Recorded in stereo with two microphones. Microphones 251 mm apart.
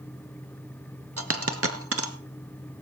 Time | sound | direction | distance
1.2 | a dropped coin | 65° right (ahead or behind) | 1.1 m